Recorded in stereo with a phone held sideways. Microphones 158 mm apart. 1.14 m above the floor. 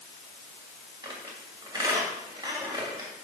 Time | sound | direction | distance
1.0 | a squeak | 25° right (ahead or behind) | 2.5 m